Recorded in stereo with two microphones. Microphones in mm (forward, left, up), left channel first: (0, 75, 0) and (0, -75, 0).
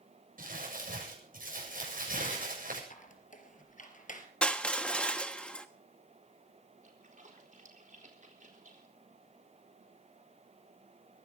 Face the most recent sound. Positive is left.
turn(degrees=-55)  # may be behind; listen again after turning